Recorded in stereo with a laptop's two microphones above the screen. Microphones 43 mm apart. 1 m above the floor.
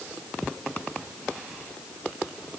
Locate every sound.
Only background noise.